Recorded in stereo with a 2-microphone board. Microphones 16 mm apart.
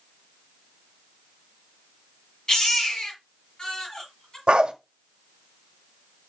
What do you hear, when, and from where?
2.5 s a baby crying: 45° left (ahead or behind), 5 m
4.5 s a dog barking: 80° right, 1.0 m